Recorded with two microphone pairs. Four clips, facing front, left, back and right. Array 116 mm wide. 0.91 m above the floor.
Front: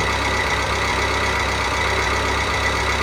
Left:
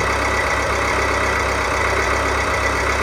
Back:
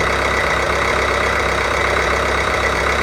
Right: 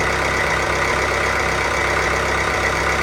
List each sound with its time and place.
0.0 s an engine running: straight behind, 0.8 m